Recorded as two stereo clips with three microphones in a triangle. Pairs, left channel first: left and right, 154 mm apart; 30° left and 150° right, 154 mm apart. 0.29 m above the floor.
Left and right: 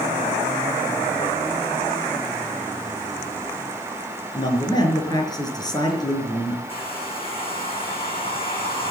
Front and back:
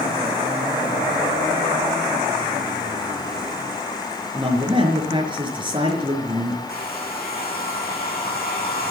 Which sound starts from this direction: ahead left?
A hair dryer, at 6.7 s.